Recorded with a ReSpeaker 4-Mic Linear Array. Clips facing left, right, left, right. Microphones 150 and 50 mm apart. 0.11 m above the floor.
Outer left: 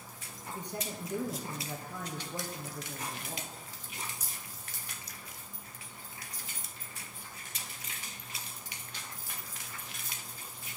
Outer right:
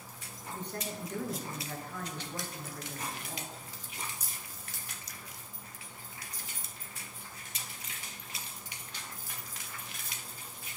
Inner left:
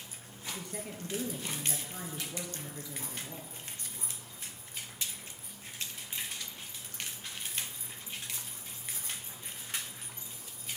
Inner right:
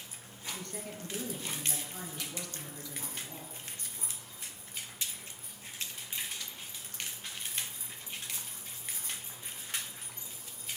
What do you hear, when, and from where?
0.5 s a woman speaking: 15° left (ahead or behind), 1.9 m